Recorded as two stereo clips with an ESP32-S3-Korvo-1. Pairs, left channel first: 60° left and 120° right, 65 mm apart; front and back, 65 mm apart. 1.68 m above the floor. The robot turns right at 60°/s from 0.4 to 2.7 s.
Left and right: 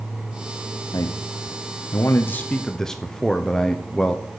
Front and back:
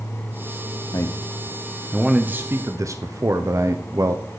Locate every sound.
0.9 s a man speaking: 35° left, 1.0 m; by 4.4 s 140° left, 1.0 m